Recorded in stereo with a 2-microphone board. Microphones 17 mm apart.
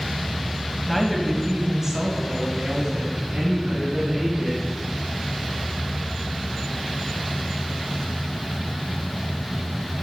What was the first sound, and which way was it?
A woman speaking, centre (ahead or behind).